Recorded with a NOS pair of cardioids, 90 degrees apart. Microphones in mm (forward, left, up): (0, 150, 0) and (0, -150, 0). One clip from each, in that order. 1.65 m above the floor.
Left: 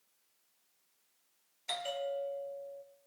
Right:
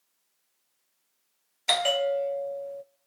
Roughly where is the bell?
Right.